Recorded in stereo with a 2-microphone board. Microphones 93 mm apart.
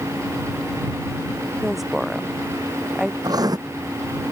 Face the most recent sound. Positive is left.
turn(degrees=-45)  # may be behind; listen again after turning